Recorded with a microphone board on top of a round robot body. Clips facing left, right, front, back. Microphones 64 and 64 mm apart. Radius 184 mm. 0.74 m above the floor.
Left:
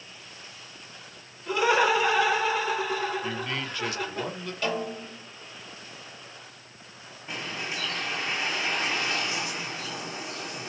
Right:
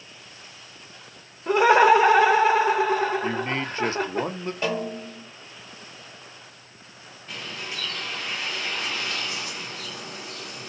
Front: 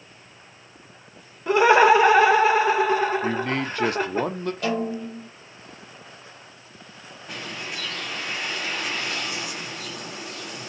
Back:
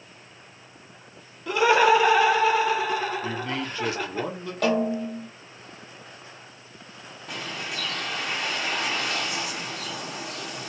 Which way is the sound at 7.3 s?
155° left.